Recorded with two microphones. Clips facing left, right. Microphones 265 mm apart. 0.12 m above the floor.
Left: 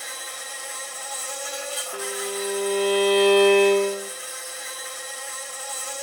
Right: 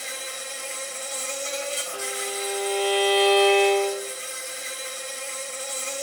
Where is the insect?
30° right (ahead or behind), 0.8 m.